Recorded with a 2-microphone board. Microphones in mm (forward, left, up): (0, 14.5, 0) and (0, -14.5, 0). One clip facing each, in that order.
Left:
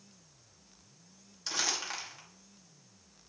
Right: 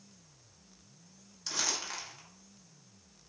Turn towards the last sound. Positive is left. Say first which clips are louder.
# left 1 dB
turn(degrees=15)  # may be behind; listen again after turning